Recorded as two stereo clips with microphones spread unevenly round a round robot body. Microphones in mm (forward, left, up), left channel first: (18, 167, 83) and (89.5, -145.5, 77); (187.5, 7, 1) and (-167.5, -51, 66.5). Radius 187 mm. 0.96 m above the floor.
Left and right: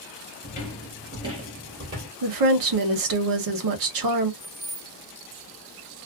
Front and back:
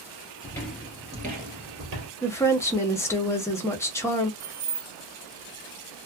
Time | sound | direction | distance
0.4 | footsteps | 95° left | 0.9 m
2.2 | a woman speaking | 70° right | 1.0 m
4.4 | keys jangling | 165° right | 1.0 m